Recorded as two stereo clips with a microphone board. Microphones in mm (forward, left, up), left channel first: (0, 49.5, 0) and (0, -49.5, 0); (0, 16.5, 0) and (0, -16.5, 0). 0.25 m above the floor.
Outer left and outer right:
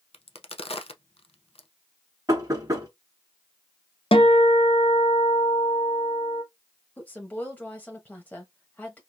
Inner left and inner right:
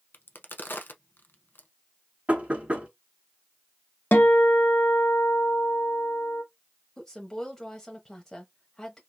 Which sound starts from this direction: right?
Knocking, at 2.3 s.